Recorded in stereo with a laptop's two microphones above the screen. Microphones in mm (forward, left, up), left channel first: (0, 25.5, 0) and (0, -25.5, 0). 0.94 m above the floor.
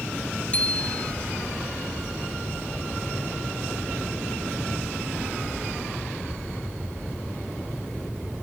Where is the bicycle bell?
25° left (ahead or behind).